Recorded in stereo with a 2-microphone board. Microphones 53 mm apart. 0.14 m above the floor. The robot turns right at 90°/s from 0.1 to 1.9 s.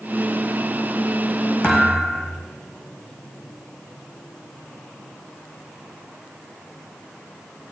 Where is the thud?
25° left (ahead or behind), 2.5 m; by 2.4 s centre (ahead or behind), 2.5 m.